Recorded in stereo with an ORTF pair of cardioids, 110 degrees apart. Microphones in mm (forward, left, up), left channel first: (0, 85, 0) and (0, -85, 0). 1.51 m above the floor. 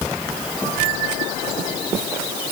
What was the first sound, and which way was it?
Only background noise.